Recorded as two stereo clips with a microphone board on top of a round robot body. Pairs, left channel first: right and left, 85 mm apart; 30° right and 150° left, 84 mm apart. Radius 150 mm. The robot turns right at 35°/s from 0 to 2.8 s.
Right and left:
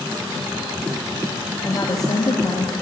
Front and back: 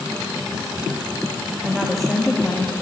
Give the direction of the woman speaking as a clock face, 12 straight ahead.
4 o'clock.